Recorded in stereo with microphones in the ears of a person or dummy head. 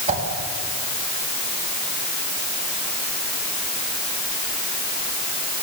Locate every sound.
0.1 s a whoosh: 35° right (ahead or behind), 4 m